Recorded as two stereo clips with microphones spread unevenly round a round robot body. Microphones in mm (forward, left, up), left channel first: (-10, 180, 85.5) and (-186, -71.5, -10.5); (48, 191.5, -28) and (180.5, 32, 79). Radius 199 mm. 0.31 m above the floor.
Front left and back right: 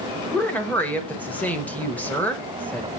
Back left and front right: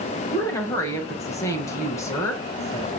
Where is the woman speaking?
160° left, 1.2 m.